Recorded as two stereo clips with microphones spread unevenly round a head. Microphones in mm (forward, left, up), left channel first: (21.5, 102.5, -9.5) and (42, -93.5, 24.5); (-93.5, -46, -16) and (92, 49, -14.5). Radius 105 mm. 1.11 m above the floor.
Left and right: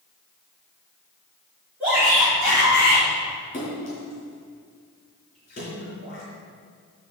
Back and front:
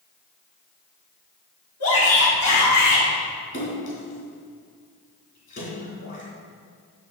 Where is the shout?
170° right, 3 m; by 3.0 s straight behind, 3.5 m.